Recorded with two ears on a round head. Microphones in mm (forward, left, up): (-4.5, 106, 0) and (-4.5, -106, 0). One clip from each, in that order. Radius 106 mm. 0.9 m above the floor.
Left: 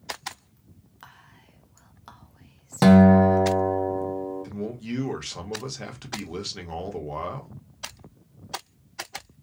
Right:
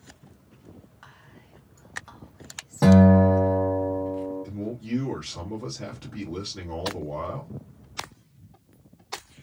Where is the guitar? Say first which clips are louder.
Left 2 dB; 70° left (ahead or behind), 0.7 m.